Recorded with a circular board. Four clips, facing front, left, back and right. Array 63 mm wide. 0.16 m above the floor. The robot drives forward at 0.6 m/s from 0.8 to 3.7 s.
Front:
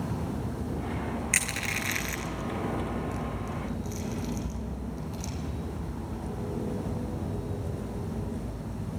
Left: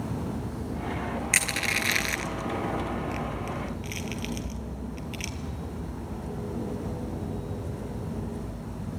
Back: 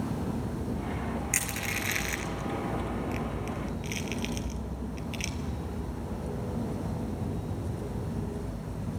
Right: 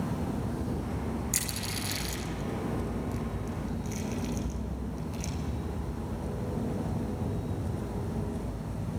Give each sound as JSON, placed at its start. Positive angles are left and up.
{"t": 1.3, "sound": "crushing", "azimuth_deg": 65, "distance_m": 1.1}